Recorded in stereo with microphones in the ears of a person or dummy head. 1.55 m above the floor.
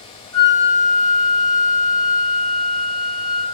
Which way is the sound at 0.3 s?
15° left (ahead or behind).